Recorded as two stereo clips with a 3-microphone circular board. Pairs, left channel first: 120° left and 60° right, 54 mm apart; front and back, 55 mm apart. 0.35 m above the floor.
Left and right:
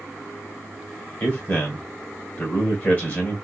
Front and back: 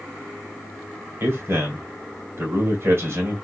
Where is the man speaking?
160° left, 1.9 m.